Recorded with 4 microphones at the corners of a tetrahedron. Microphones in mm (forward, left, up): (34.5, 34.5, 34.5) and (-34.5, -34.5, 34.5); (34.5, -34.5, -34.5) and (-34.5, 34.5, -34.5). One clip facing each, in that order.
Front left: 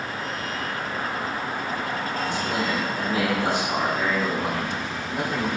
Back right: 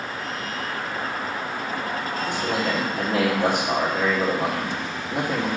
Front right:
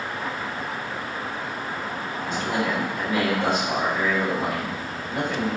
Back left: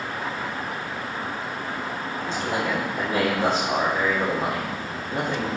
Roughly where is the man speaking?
Behind.